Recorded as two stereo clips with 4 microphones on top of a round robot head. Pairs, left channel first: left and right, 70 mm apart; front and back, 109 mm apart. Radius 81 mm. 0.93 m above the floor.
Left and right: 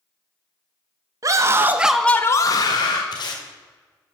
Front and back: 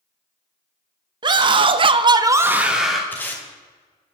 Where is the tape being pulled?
75° left, 2.0 m.